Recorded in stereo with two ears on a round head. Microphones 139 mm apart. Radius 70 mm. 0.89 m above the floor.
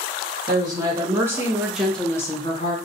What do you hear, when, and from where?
0.5 s a woman speaking: 30° right (ahead or behind), 1.3 m; by 2.8 s 40° left (ahead or behind), 0.7 m